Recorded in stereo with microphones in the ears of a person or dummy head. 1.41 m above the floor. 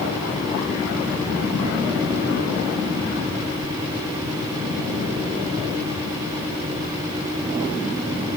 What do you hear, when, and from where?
Only background noise.